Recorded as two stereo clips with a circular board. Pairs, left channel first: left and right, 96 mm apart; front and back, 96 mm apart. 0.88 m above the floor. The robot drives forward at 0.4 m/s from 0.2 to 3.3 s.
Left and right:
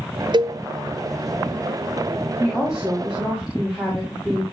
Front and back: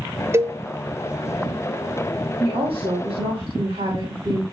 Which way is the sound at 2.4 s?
175° right.